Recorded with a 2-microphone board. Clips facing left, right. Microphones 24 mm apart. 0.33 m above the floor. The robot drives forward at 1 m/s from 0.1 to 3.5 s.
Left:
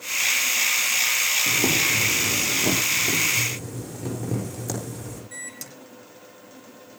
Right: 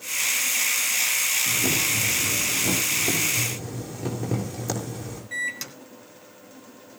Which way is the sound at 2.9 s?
15° right (ahead or behind).